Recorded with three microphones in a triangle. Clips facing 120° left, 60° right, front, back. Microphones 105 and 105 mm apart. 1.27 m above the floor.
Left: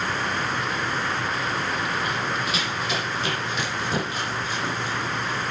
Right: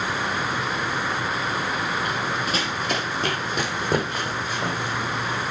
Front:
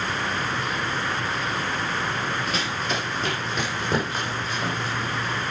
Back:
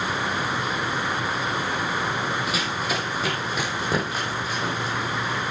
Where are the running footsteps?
100° right, 2.5 m; by 5.4 s 95° right, 4 m.